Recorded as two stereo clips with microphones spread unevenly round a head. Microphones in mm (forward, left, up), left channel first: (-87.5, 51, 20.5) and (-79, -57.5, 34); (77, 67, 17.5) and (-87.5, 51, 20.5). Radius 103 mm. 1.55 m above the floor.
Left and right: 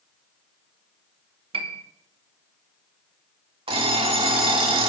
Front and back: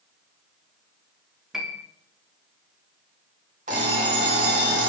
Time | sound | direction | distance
1.5 | a piano | 90° right | 0.9 m
3.7 | an alarm clock | 115° right | 2.5 m